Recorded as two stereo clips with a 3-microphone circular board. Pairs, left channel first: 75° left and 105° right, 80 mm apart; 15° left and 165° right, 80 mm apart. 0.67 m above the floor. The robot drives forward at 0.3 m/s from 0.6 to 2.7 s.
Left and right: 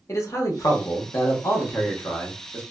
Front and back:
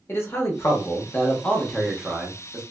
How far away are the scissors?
I don't hear scissors.